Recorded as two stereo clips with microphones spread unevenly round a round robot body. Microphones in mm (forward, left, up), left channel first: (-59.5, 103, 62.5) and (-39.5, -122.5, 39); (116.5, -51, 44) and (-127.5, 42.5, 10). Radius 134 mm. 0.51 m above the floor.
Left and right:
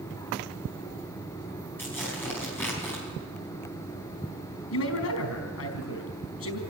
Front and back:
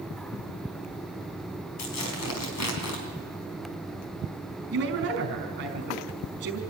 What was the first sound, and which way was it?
Tearing paper, 10° left.